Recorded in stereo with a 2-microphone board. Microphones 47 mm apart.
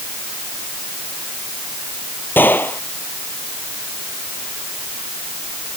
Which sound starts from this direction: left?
A gunshot, at 2.4 s.